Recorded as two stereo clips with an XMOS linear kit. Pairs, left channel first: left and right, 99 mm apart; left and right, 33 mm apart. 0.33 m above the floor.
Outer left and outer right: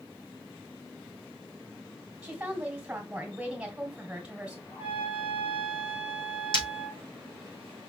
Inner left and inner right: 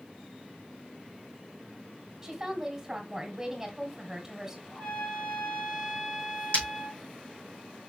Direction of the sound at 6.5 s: 55° left (ahead or behind).